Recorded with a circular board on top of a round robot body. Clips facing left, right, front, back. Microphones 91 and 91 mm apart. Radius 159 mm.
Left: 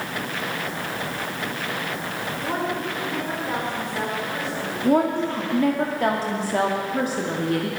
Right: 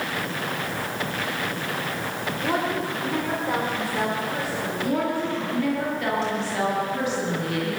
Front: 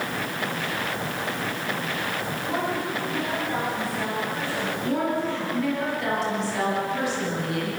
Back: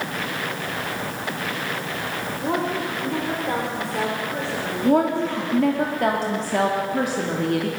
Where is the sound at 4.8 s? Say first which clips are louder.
Left 6 dB, back 8 dB; 140° left, 2.5 m.